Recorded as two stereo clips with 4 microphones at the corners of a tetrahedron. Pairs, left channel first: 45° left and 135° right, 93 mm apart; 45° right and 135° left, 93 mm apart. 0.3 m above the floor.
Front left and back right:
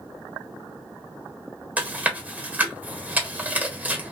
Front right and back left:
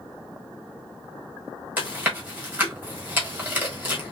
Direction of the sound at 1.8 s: 175° left.